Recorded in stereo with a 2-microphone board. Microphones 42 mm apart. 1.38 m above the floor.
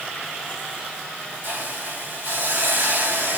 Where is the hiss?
55° right (ahead or behind), 3.5 m.